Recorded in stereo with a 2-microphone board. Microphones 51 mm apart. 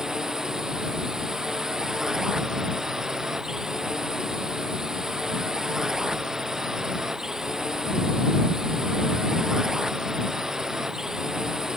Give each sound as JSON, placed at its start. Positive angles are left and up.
{"t": 0.0, "sound": "a drone", "side_deg": -10}